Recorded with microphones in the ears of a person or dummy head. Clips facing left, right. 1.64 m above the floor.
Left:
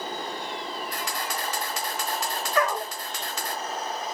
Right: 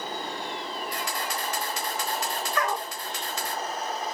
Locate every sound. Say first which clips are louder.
0.9 s a camera shutter: even; 60° left (ahead or behind), 3 m
2.5 s a dog barking: left 5 dB; 50° left (ahead or behind), 3.5 m